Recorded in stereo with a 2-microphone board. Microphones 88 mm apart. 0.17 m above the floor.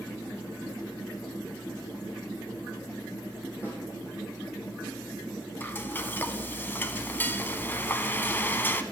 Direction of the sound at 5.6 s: 25° left (ahead or behind).